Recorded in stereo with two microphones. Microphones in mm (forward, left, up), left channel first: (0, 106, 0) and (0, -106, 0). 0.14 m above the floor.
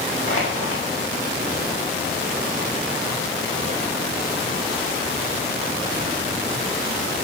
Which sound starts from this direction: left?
Crushing, at 0.3 s.